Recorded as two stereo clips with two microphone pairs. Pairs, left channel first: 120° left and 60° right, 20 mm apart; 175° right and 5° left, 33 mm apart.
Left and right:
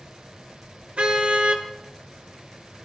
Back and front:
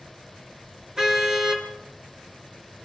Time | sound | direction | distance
1.0 | a car horn | 70° right | 3.5 m